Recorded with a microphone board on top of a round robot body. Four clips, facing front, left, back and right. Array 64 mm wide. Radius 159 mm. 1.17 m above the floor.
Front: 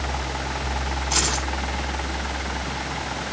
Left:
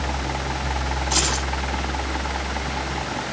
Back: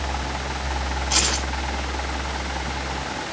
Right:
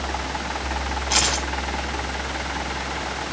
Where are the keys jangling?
105° right, 5.5 m.